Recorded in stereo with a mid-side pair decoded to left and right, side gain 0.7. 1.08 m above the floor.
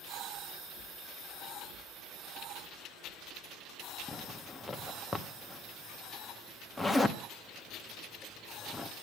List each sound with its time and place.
4.1 s a zipper: 5° left, 1.6 m